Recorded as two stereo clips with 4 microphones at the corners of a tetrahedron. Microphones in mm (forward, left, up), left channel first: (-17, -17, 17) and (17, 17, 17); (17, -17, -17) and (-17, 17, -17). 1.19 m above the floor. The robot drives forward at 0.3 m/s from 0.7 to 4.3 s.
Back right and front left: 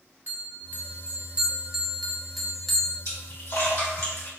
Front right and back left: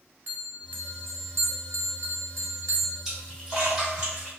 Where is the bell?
90° left, 0.5 m; by 3.0 s 145° left, 0.9 m.